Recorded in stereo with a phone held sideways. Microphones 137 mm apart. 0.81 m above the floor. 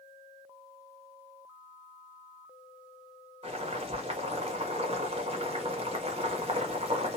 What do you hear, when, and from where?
3.4 s boiling: 45° right (ahead or behind), 1.0 m